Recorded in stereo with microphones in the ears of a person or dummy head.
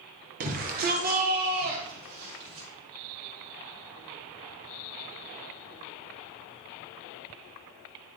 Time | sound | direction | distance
0.4 | a shout | 40° right (ahead or behind) | 1.1 m